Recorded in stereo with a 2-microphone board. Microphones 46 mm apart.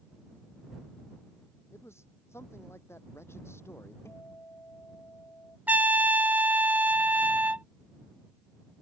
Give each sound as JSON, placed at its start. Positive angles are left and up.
{"t": 1.7, "sound": "a man speaking", "side_deg": 80}
{"t": 4.0, "sound": "a guitar", "side_deg": 85}
{"t": 5.7, "sound": "a trumpet", "side_deg": -40}